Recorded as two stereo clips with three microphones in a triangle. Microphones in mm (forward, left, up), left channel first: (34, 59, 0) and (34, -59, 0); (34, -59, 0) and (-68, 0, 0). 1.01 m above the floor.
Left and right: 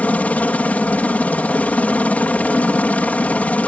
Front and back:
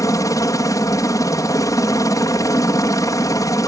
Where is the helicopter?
15° left.